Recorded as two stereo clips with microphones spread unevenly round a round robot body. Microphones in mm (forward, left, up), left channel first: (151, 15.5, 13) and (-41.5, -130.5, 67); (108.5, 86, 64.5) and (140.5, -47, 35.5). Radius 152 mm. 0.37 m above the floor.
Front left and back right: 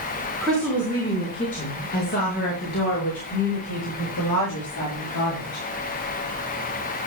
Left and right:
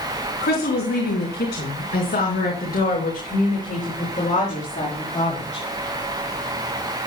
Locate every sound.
0.4 s a woman speaking: 125° left, 3.5 m; by 5.6 s 60° left, 7.5 m